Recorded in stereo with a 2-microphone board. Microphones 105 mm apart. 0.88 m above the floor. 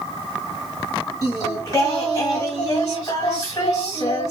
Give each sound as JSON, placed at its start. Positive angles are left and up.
{"t": 1.2, "sound": "singing", "side_deg": 40, "distance_m": 4.0}